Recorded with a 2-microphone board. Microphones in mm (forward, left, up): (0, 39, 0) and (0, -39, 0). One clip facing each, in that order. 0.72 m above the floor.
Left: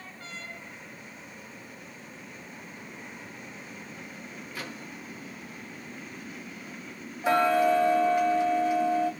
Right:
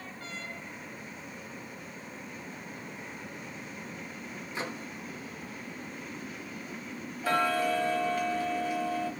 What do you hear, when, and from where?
4.5 s a microwave: 25° right (ahead or behind), 0.6 m
7.2 s ticking: 20° left (ahead or behind), 1.4 m